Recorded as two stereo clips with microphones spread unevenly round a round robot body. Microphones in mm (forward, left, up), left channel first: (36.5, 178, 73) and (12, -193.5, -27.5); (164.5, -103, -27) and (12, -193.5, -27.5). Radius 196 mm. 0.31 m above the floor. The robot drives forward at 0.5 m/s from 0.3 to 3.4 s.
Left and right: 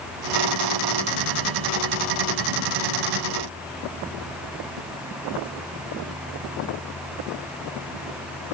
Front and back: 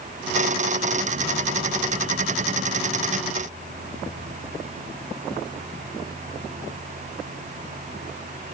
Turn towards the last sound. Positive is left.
No sound to turn to.